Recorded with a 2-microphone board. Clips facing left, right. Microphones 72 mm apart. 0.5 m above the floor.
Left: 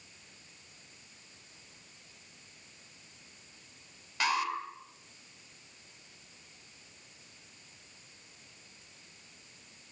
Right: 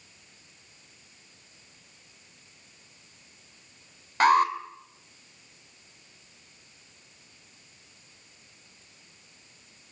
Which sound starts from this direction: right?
An alarm, at 4.2 s.